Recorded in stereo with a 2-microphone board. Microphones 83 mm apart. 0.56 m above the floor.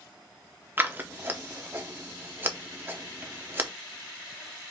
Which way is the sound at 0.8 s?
25° right (ahead or behind).